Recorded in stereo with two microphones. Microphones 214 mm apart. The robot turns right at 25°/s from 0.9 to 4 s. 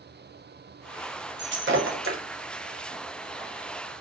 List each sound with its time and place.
1.4 s breaking glass: 55° right (ahead or behind), 0.7 m; by 2.2 s 75° right (ahead or behind), 0.7 m